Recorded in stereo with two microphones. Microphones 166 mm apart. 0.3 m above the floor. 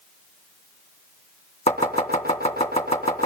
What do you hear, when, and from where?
1.7 s chopping: 40° left (ahead or behind), 3 m